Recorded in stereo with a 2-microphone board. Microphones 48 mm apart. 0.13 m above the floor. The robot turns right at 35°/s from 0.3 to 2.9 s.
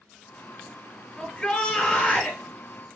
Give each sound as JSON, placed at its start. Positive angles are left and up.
{"t": 1.2, "sound": "a shout", "azimuth_deg": 20, "distance_m": 2.0}